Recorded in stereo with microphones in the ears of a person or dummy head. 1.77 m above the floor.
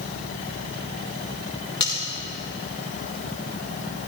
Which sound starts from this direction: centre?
Cutlery clinking, at 1.8 s.